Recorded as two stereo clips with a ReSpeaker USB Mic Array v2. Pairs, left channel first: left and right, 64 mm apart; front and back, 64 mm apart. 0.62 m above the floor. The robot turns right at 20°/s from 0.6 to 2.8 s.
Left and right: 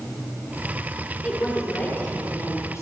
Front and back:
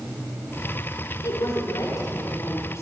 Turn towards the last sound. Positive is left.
turn(degrees=45)